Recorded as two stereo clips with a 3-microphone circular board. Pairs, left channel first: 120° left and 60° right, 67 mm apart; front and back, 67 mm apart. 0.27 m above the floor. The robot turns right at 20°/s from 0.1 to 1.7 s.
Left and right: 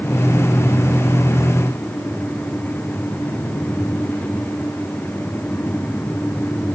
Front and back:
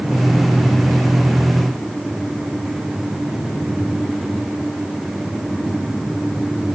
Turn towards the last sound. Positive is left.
No sound to turn to.